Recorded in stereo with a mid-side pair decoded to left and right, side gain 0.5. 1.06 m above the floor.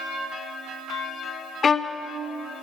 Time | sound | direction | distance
1.6 | a violin | 45° left | 0.5 m